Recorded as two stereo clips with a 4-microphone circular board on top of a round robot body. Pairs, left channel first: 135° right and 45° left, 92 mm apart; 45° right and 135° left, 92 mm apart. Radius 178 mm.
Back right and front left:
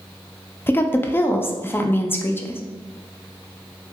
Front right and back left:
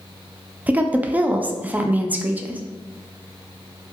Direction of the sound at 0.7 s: 175° right.